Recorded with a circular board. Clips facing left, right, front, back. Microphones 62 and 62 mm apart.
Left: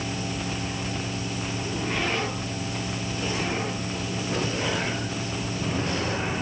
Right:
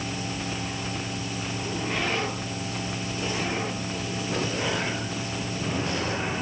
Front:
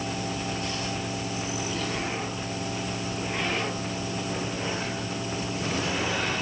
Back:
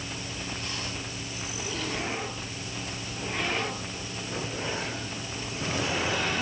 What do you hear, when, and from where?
Only background noise.